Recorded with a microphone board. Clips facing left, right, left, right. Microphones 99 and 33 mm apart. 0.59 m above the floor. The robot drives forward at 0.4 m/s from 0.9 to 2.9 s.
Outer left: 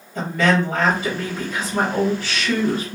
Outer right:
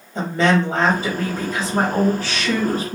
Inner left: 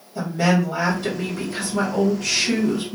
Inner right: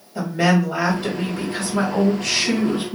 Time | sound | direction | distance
0.1 | a woman speaking | 30° right (ahead or behind) | 1.5 m